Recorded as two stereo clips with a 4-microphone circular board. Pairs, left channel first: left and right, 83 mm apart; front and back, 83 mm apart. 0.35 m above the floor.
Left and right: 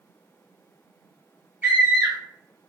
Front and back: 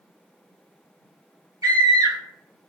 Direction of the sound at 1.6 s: 155° right.